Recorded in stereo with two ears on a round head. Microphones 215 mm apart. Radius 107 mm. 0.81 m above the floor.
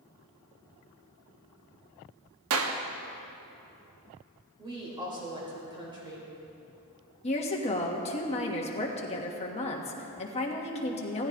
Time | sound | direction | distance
2.5 | a clap | 60° right (ahead or behind) | 1.1 m
4.6 | a woman speaking | 20° right (ahead or behind) | 3.5 m
7.2 | a woman speaking | 25° left (ahead or behind) | 1.4 m